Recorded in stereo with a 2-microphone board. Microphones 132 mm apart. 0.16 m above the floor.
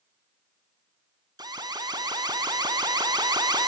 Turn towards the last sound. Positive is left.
turn(degrees=-30)  # may be behind; listen again after turning